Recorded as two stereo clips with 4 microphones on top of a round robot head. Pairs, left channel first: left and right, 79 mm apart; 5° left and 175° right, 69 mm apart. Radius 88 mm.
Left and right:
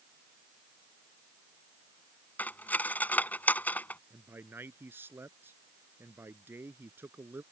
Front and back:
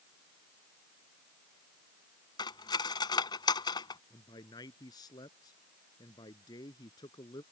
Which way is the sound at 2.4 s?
20° left.